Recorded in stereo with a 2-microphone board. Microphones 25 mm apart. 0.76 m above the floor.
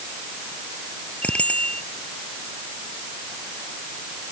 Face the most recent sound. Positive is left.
turn(degrees=60)  # may be behind; listen again after turning